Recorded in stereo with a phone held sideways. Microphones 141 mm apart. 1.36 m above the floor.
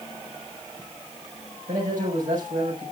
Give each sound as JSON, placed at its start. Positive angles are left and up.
{"t": 1.7, "sound": "a man speaking", "side_deg": -75, "distance_m": 5.0}